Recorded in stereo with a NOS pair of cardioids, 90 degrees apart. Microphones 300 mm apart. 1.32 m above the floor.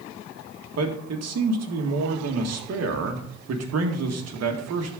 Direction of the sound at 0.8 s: 55° right.